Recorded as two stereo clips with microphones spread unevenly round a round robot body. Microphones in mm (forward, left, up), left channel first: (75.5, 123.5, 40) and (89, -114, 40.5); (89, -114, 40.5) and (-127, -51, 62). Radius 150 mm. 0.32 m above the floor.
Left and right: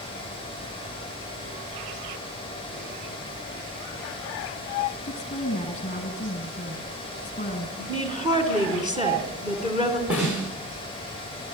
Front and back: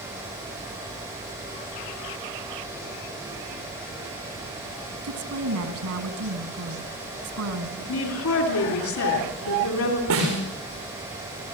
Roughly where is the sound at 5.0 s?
Behind.